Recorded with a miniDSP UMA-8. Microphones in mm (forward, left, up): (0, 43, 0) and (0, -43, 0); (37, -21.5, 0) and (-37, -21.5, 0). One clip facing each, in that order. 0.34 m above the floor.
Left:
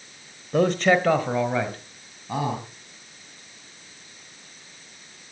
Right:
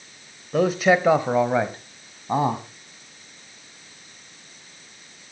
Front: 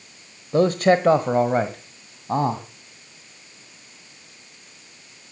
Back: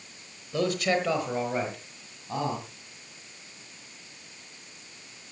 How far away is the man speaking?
About 1.3 m.